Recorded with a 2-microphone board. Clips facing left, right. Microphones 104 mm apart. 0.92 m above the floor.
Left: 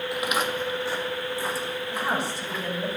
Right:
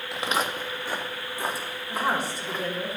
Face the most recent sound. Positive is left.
turn(degrees=-50)  # may be behind; listen again after turning